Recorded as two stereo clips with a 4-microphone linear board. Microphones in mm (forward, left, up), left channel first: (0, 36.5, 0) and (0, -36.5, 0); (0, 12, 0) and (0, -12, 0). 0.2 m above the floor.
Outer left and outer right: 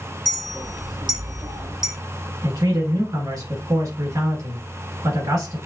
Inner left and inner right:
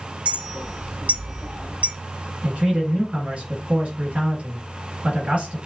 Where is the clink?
70° right (ahead or behind), 2 m.